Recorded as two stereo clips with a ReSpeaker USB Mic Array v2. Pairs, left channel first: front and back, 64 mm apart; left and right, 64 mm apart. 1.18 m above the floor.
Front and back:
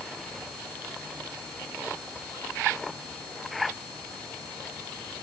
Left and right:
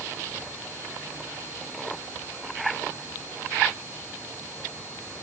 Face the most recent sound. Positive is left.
No sound to turn to.